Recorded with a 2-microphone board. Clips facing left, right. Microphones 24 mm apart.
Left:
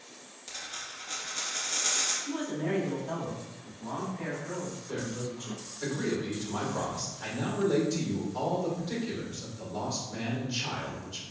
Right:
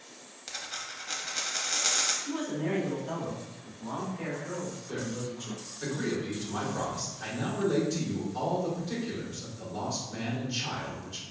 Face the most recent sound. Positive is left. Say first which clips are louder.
# even
turn(degrees=-5)  # may be behind; listen again after turning